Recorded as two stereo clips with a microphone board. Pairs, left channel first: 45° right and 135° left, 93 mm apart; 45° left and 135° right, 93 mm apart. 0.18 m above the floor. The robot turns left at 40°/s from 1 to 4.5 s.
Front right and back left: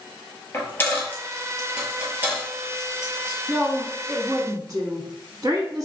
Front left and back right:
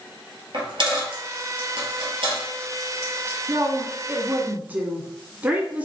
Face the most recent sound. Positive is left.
turn(degrees=160)